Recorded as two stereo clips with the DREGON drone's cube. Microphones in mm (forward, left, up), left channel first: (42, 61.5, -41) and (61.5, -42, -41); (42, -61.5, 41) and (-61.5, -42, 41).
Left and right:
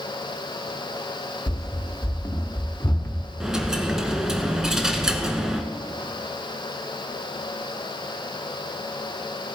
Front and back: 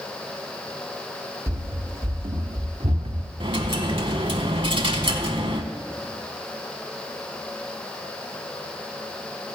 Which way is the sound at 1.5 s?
145° left.